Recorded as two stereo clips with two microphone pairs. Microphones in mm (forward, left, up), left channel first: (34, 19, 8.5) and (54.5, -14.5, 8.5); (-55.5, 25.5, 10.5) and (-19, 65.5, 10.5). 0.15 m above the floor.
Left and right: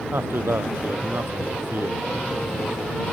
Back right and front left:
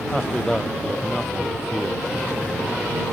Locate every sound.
0.1 s a man speaking: 50° right